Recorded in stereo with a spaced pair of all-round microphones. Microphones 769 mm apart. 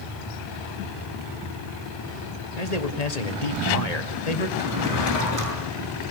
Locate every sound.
2.6 s a man speaking: 55° left (ahead or behind), 1.8 m
4.6 s a drawer: 25° right (ahead or behind), 7 m